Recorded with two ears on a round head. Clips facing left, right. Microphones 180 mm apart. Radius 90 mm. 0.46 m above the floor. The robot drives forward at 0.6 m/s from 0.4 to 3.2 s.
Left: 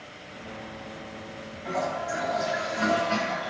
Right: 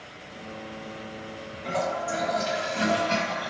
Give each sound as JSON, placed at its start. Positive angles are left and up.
{"t": 1.6, "sound": "a toilet flushing", "side_deg": -50, "distance_m": 3.0}